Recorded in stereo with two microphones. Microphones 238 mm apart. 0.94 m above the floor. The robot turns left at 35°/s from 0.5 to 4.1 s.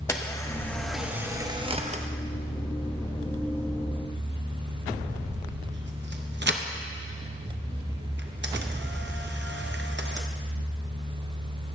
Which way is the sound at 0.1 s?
10° left (ahead or behind).